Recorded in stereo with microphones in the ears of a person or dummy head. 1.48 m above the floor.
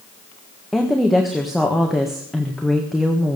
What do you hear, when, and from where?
0.7 s a woman speaking: centre (ahead or behind), 1.6 m